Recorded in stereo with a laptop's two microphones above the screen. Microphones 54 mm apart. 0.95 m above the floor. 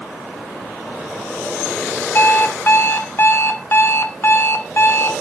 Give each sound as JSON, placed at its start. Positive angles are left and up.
{"t": 2.1, "sound": "an alarm clock", "side_deg": 45, "distance_m": 0.6}